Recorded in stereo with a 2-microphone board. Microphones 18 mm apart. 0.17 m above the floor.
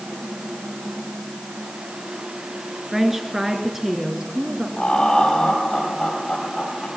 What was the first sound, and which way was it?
A woman speaking, 20° right (ahead or behind).